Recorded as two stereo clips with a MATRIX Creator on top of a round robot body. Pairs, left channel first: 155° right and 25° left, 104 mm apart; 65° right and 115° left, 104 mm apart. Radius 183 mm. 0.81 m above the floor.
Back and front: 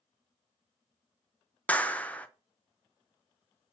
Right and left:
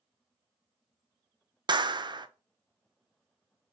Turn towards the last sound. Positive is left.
turn(degrees=130)